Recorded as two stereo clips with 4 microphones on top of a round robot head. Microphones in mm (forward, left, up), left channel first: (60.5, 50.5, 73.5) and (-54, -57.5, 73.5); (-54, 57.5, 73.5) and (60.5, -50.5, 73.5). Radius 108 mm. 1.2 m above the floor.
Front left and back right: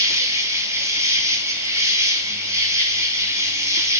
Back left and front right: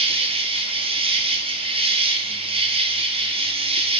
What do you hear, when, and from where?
0.0 s an insect: 75° right, 0.7 m